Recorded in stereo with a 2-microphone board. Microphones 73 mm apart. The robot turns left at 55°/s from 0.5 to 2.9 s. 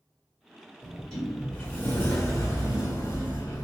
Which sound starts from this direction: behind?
A sliding door, at 0.8 s.